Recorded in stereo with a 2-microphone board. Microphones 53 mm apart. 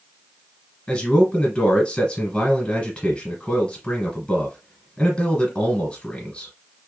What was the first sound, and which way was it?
A man speaking, 10° left (ahead or behind).